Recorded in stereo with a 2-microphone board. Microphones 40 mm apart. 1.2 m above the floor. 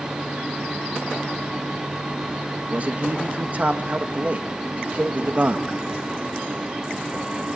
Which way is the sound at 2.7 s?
40° right (ahead or behind).